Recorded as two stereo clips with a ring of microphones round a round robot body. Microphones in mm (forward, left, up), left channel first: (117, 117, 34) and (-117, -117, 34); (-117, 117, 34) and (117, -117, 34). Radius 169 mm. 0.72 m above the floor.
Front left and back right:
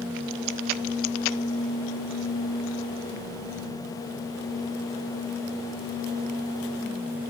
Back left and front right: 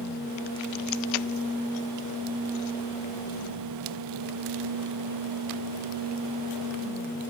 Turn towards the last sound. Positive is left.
No sound to turn to.